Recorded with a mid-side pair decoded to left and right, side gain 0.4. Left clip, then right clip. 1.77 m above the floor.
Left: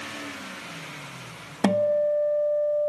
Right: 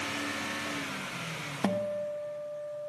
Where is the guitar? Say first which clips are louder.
Left 11 dB; 65° left, 0.5 m.